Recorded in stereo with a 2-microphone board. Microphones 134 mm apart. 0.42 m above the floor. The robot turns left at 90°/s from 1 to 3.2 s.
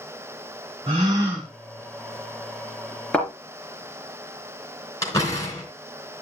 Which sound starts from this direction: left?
A door slam, at 5.0 s.